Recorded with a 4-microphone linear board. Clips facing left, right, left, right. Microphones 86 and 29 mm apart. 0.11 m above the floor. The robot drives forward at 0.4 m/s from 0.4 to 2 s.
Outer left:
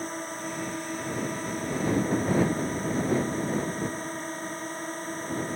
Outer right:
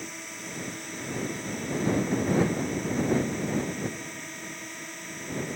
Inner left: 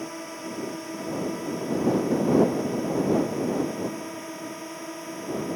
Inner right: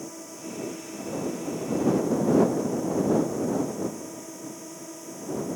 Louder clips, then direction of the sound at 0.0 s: Outer left 7 dB, inner left 4 dB; 35° left (ahead or behind).